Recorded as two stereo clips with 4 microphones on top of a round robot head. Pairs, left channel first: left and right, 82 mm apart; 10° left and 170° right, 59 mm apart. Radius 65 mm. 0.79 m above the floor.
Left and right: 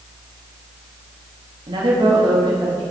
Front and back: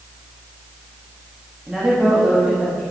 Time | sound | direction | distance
1.7 | a woman speaking | 95° right | 1.4 m